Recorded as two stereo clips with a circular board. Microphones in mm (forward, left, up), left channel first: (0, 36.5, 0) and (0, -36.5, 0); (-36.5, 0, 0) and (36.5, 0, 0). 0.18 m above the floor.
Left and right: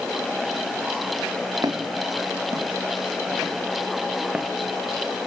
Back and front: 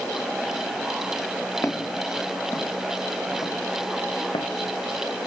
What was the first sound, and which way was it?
Footsteps, 130° right.